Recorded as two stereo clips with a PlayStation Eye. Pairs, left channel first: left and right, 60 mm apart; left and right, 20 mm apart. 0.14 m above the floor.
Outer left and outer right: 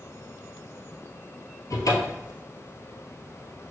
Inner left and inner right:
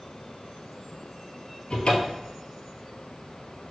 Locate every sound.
1.7 s a cupboard door: 65° left (ahead or behind), 0.9 m